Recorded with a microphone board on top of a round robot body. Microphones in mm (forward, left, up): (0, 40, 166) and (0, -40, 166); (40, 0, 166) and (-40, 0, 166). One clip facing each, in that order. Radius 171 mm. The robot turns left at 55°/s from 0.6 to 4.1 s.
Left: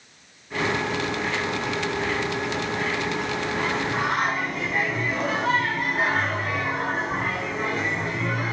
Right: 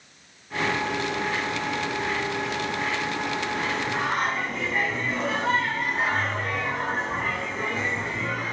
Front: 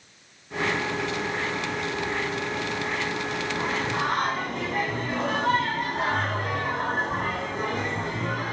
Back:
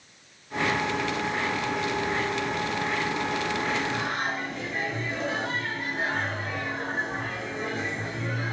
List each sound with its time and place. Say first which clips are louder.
3.6 s singing: left 2 dB, front 1 dB; 30° left, 2.5 m; by 8.5 s straight ahead, 2.5 m